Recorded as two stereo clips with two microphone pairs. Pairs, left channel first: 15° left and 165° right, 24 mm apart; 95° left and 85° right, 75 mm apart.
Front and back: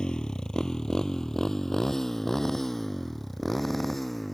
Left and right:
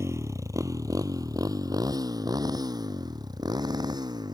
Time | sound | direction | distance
0.0 | a motorcycle | 40° right | ?